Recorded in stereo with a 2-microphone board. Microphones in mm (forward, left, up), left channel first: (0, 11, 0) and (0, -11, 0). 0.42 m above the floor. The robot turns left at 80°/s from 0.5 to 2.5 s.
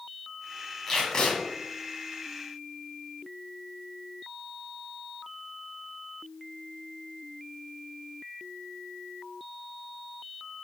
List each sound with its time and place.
0.9 s tape being pulled: 160° left, 2.5 m; by 1.4 s 120° left, 2.5 m